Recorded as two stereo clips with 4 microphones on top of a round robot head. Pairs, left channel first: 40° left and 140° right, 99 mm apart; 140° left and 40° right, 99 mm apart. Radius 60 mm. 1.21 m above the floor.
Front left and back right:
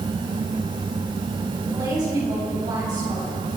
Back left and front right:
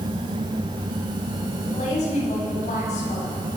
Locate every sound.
1.6 s a woman speaking: 165° left, 9 m